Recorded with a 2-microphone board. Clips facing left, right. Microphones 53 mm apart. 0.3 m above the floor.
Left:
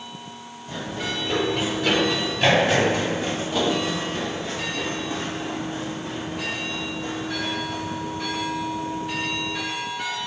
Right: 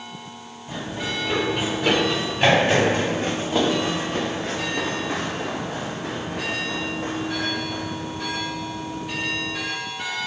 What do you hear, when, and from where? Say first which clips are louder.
0.7 s running footsteps: right 1 dB; 20° right (ahead or behind), 4 m; by 9.6 s 30° right (ahead or behind), 3.5 m